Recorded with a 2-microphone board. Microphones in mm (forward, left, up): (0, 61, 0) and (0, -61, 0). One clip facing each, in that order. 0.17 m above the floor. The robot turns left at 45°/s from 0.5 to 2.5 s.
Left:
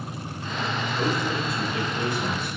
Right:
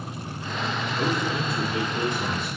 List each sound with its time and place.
1.0 s a man speaking: 5° right, 1.2 m; by 2.5 s 75° right, 1.2 m